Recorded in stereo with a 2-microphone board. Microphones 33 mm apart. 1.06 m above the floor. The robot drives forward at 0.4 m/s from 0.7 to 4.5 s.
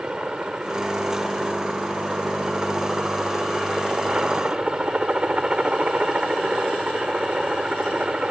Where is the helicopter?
30° right (ahead or behind).